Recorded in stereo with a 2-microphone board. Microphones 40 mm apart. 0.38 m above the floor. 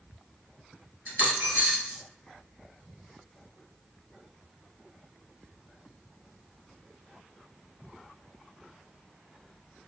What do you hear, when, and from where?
1.1 s a dropped coin: 45° right (ahead or behind), 0.9 m